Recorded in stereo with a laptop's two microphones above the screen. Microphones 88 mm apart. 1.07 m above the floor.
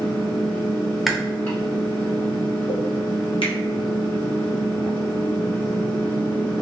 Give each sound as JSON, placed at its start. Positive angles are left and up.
{"t": 0.0, "sound": "a fan", "side_deg": 25, "distance_m": 1.5}
{"t": 1.1, "sound": "chewing", "side_deg": -5, "distance_m": 0.5}
{"t": 3.4, "sound": "a finger snap", "side_deg": 75, "distance_m": 0.7}